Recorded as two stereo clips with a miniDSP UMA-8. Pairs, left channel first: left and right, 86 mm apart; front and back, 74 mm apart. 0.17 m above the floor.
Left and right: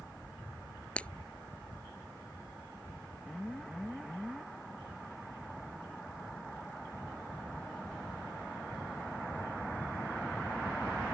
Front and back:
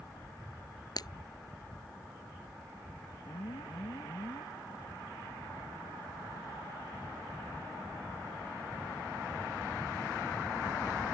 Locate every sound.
1.0 s breaking glass: 15° left
3.2 s an alarm: straight ahead